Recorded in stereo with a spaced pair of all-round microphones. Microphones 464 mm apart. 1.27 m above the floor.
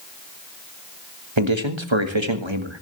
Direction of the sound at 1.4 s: 75° right (ahead or behind).